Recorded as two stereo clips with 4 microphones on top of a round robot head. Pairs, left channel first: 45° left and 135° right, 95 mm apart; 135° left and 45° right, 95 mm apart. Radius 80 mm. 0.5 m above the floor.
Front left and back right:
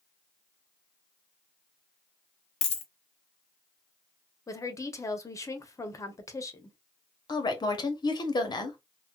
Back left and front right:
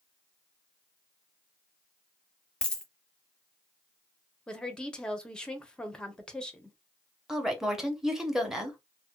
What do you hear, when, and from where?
2.6 s a dropped coin: 50° left, 0.6 m
4.5 s a woman speaking: 55° left, 0.7 m
7.3 s a woman speaking: 35° left, 0.9 m